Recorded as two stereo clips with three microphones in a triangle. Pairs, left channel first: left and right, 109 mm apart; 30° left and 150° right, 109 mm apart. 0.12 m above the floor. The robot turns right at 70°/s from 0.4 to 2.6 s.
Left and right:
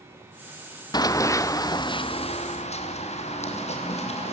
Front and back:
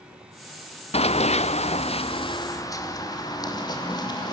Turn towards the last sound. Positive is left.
turn(degrees=80)